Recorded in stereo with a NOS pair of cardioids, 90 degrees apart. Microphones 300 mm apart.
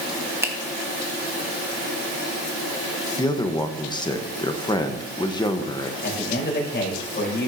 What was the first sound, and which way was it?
A finger snap, 10° right.